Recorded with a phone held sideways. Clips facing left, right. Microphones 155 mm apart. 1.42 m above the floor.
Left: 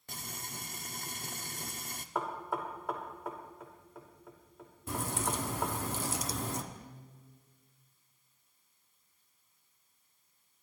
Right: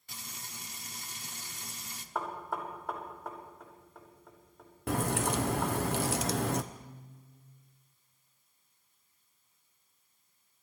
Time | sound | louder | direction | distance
0.1 | frying | left 4 dB | 50° left (ahead or behind) | 0.7 m
2.1 | knocking | left 1 dB | 5° left (ahead or behind) | 3 m
4.9 | a crack | right 5 dB | 70° right (ahead or behind) | 0.6 m
6.7 | a guitar | right 1 dB | 10° right (ahead or behind) | 4 m